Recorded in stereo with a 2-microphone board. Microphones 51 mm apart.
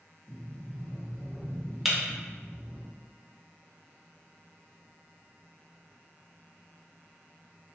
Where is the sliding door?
45° left (ahead or behind), 1.0 m.